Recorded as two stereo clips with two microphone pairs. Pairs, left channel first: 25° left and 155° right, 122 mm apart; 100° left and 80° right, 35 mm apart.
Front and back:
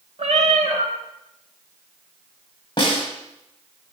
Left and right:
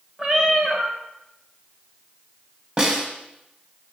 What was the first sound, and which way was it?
A cat meowing, 150° right.